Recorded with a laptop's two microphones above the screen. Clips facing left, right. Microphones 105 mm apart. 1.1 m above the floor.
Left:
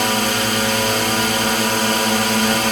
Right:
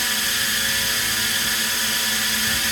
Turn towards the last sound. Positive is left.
turn(degrees=65)  # may be behind; listen again after turning